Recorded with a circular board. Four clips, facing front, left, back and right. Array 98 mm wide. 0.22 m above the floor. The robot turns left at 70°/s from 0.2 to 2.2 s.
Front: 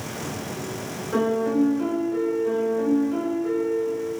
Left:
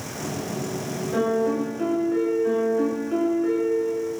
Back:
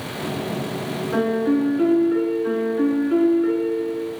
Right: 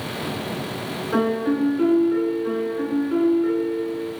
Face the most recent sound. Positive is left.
turn(degrees=-170)